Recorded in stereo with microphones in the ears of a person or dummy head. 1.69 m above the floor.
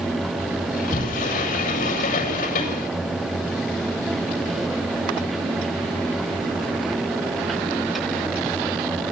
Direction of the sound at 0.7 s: 40° left (ahead or behind).